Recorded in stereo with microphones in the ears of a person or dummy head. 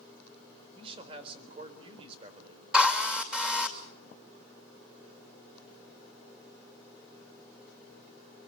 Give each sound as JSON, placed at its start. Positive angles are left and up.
{"t": 0.8, "sound": "a man speaking", "side_deg": -30, "distance_m": 4.0}
{"t": 2.7, "sound": "a drill", "side_deg": -10, "distance_m": 2.5}